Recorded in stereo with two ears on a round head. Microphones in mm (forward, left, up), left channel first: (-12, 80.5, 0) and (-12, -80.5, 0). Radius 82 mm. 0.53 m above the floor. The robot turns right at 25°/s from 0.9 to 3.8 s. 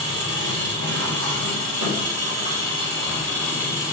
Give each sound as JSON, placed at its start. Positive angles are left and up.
{"t": 0.0, "sound": "an engine running", "azimuth_deg": -80, "distance_m": 1.7}